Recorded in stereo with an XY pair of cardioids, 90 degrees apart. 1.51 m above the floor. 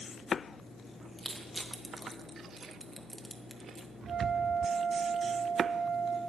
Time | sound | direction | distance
1.2 | crushing | 15° right | 1.6 m
4.1 | a flute | 70° right | 1.6 m